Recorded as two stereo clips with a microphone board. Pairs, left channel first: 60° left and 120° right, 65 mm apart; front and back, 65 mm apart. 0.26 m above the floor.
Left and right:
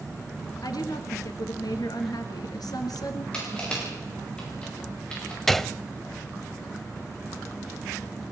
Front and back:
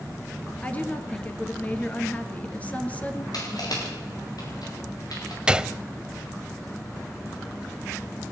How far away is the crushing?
About 10 m.